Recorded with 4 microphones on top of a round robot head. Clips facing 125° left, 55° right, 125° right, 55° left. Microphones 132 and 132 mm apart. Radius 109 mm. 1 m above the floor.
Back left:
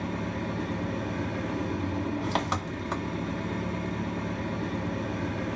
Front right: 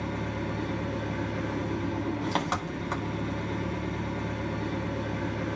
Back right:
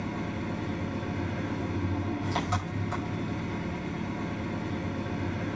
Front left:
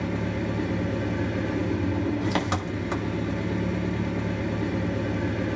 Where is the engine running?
35° left, 3.5 m.